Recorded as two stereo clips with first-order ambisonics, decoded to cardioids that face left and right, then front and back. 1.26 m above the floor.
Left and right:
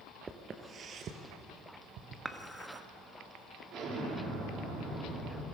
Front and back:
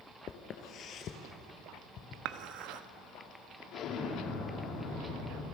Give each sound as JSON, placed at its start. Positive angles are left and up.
{"t": 0.3, "sound": "footsteps", "azimuth_deg": -25, "distance_m": 1.5}
{"t": 2.2, "sound": "dishes clattering", "azimuth_deg": -170, "distance_m": 0.9}
{"t": 3.7, "sound": "an explosion", "azimuth_deg": -40, "distance_m": 3.5}